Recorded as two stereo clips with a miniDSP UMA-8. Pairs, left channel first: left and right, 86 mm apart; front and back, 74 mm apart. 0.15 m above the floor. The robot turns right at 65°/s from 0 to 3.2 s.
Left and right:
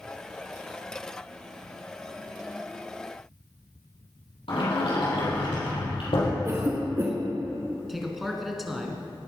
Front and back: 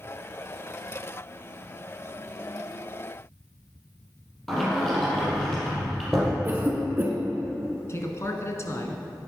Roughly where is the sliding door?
Left.